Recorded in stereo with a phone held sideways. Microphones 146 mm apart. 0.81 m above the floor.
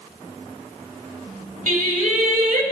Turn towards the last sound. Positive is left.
turn(degrees=-65)  # may be behind; listen again after turning